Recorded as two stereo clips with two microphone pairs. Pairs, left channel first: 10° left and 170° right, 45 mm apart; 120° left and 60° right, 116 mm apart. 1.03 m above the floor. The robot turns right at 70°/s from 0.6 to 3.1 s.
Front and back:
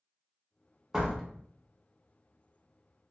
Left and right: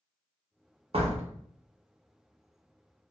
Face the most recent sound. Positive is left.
turn(degrees=60)